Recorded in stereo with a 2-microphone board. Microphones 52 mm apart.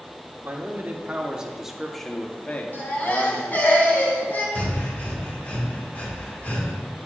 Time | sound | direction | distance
0.4 | a man speaking | 35° right (ahead or behind) | 1.7 m
2.7 | a baby crying | 35° left (ahead or behind) | 3 m
4.5 | breathing | 30° left (ahead or behind) | 1.9 m